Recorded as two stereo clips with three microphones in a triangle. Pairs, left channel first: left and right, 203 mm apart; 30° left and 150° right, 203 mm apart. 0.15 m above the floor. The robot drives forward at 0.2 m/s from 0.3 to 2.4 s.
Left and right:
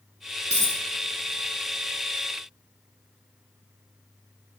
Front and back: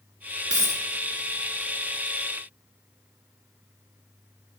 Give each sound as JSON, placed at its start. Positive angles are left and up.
{"t": 0.5, "sound": "a dropped coin", "azimuth_deg": -140, "distance_m": 1.8}